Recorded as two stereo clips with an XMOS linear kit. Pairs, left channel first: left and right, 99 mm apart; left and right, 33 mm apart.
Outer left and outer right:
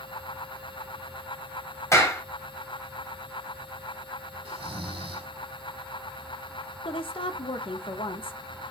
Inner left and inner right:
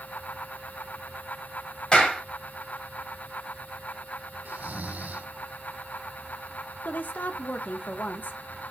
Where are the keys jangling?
No keys jangling in this recording.